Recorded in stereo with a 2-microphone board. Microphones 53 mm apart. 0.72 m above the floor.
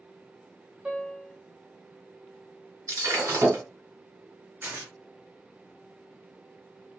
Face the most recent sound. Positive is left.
turn(degrees=-40)  # may be behind; listen again after turning